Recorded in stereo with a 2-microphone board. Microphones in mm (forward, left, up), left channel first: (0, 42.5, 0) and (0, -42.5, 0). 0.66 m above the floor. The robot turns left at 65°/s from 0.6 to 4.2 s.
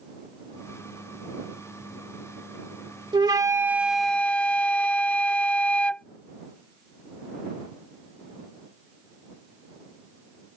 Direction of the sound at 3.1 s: 125° right.